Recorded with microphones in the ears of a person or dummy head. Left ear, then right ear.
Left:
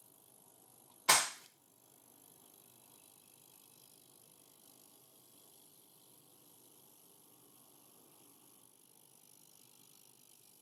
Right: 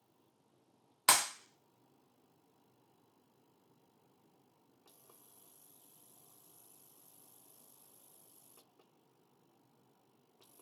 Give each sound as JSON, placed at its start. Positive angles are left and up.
{"t": 1.1, "sound": "a clap", "side_deg": -65, "distance_m": 0.9}